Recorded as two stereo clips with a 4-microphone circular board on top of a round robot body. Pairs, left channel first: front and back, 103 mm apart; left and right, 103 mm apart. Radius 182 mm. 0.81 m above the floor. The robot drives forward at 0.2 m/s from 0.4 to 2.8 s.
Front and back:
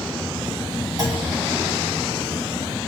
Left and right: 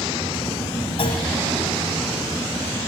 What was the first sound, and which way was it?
A clunk, 130° left.